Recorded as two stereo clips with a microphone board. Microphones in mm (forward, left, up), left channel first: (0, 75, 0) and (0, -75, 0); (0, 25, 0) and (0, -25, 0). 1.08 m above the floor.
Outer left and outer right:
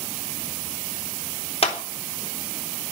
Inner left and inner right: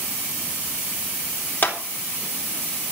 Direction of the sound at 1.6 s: 45° left (ahead or behind).